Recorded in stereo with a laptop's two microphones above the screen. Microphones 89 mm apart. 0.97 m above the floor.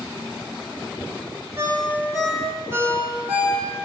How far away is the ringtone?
About 0.6 m.